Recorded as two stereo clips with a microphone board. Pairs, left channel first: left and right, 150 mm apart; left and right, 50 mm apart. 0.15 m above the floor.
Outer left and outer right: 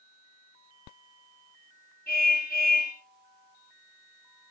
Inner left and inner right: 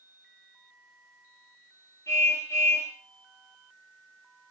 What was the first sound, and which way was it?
A car horn, 85° left.